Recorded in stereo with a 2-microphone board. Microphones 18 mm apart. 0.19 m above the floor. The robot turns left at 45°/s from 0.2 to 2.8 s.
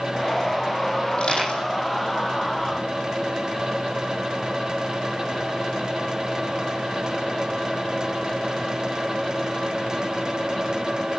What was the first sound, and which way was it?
Crushing, 50° left (ahead or behind).